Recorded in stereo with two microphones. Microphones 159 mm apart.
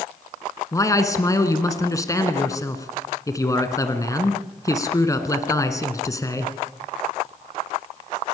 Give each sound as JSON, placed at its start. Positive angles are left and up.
{"t": 0.7, "sound": "a man speaking", "side_deg": 20, "distance_m": 1.8}